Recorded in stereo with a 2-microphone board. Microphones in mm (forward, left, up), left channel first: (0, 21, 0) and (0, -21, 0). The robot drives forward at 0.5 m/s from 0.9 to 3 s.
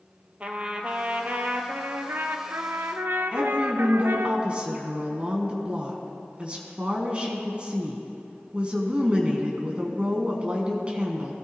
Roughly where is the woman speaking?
Right.